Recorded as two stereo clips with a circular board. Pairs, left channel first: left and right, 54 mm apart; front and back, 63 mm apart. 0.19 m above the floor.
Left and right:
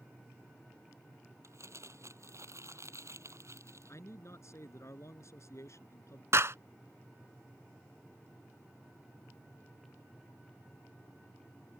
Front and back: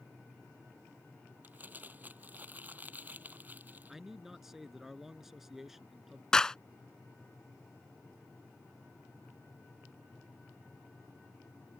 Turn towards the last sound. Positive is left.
turn(degrees=-75)